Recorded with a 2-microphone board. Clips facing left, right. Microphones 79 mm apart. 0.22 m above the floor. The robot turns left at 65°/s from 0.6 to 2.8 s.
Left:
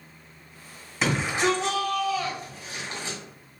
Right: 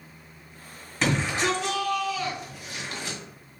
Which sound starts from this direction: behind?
A shout, at 1.0 s.